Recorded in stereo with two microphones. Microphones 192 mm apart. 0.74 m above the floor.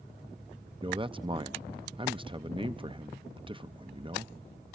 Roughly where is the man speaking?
Right.